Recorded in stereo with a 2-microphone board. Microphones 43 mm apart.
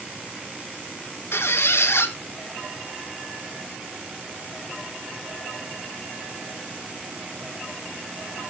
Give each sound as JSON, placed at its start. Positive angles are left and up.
{"t": 1.3, "sound": "a squeak", "side_deg": 85, "distance_m": 1.8}